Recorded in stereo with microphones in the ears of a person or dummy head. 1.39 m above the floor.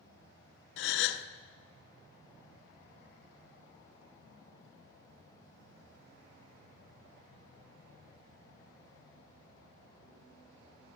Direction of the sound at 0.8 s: 70° left (ahead or behind).